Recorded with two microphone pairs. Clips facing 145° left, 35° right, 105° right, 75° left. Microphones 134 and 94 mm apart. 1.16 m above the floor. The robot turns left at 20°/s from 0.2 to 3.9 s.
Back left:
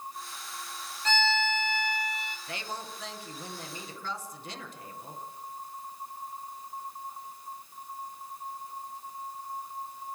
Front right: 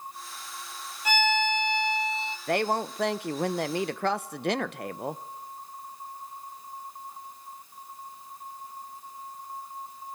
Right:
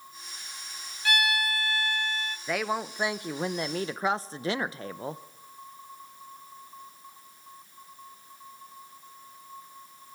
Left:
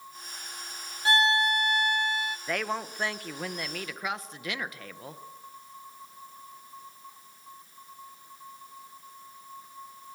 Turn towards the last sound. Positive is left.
turn(degrees=-45)